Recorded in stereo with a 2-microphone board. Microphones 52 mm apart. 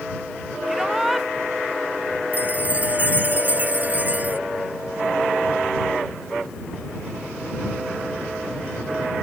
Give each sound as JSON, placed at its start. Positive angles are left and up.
{"t": 0.7, "sound": "a shout", "side_deg": -5}
{"t": 2.3, "sound": "a chime", "side_deg": -35}